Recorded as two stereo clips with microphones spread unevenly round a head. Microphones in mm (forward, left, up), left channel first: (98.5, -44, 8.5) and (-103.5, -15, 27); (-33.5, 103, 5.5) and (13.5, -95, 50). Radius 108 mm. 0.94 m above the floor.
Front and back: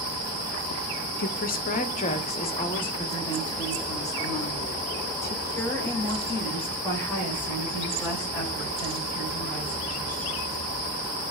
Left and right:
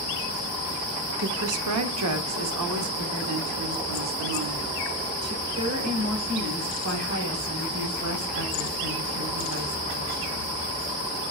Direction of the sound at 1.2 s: 45° right.